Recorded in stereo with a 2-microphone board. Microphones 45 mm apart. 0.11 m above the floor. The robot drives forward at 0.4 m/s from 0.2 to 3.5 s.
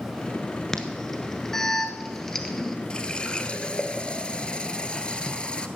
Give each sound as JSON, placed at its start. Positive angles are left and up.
{"t": 0.7, "sound": "an alarm", "side_deg": 10, "distance_m": 1.6}
{"t": 2.9, "sound": "a running tap", "side_deg": 20, "distance_m": 1.4}